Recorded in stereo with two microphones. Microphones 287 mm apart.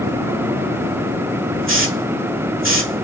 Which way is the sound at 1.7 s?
45° right (ahead or behind).